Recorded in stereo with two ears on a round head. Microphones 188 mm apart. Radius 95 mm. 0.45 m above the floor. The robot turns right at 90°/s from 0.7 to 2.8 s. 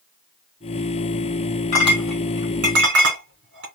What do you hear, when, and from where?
1.7 s a clink: 35° left (ahead or behind), 2.5 m; by 3.7 s 60° right (ahead or behind), 2.5 m